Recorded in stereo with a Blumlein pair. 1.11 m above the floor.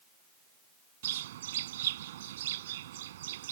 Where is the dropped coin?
I don't hear a dropped coin.